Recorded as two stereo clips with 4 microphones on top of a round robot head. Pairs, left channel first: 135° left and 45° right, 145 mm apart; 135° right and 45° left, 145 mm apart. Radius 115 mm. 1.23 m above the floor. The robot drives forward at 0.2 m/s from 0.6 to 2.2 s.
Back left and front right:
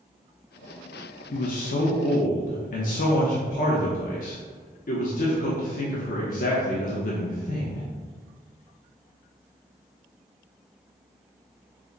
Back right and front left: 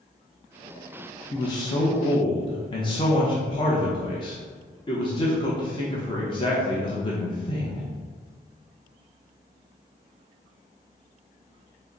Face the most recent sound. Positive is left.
turn(degrees=165)